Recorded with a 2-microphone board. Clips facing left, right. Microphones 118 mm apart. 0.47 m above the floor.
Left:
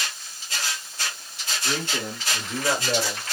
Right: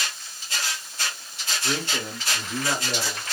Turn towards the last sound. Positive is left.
turn(degrees=40)  # may be behind; listen again after turning